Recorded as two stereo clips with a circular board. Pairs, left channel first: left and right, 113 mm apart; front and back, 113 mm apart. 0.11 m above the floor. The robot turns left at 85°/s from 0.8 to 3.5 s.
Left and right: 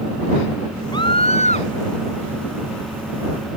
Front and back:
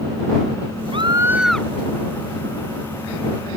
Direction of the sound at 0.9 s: 140° left.